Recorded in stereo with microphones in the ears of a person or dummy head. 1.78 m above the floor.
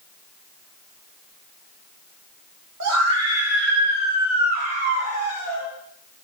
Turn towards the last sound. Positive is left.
turn(degrees=-55)  # may be behind; listen again after turning